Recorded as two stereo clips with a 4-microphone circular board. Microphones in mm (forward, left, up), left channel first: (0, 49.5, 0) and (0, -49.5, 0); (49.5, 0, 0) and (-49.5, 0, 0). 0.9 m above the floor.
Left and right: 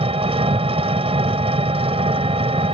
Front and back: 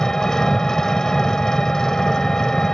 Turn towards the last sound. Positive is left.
turn(degrees=-85)